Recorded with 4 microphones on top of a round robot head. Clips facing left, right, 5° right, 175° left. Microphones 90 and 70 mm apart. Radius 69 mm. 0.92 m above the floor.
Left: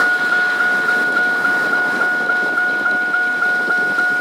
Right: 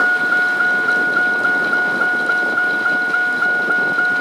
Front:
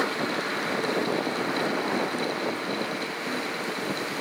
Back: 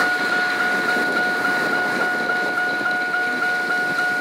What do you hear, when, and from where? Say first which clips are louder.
0.0 s a vehicle: even, back 8 dB; straight behind; by 4.2 s 175° left